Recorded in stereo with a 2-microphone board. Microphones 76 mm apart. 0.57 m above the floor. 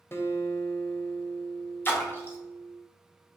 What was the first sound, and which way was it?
A guitar, 30° left (ahead or behind).